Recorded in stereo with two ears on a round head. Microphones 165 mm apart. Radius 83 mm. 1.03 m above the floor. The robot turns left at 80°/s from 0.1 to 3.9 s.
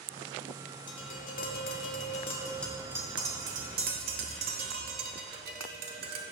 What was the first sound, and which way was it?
Tapping, 25° left (ahead or behind).